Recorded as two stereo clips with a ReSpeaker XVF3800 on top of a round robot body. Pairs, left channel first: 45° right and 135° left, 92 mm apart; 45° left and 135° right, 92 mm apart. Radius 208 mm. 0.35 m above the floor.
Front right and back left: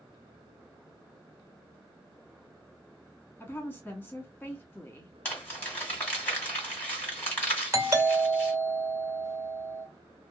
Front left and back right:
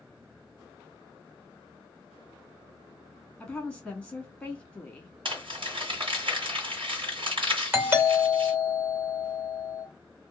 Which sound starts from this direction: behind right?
Crumpling, at 5.2 s.